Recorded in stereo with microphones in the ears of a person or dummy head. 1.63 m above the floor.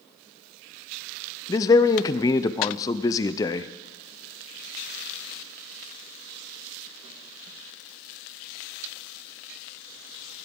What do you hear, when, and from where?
1.5 s a man speaking: 25° left (ahead or behind), 0.6 m